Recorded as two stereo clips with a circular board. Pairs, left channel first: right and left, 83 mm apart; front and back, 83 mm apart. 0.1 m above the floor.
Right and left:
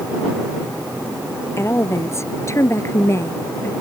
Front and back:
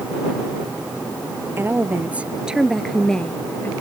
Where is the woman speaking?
130° right; by 3.7 s 50° right.